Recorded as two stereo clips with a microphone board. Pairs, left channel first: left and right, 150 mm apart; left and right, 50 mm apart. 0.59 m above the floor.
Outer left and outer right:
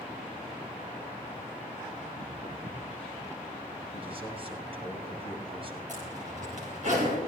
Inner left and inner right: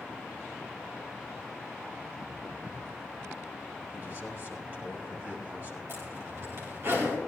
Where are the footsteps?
60° right (ahead or behind), 3 m; by 3.0 s 75° right (ahead or behind), 2.5 m.